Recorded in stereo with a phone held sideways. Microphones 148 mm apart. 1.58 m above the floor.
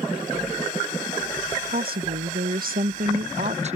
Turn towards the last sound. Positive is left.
turn(degrees=-45)  # may be behind; listen again after turning